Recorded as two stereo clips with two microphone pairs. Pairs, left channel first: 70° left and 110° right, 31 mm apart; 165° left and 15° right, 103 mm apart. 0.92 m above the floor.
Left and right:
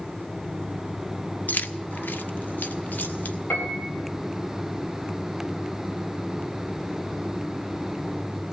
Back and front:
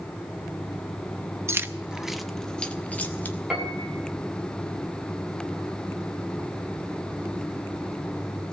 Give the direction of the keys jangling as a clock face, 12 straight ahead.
10 o'clock.